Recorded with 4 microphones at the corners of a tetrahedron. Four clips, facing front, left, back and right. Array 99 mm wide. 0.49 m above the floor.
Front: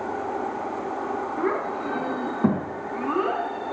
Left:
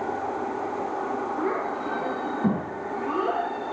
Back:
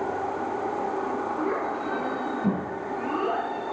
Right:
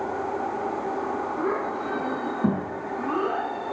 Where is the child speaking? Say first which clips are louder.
Even, front 2 dB; 20° right, 3.5 m.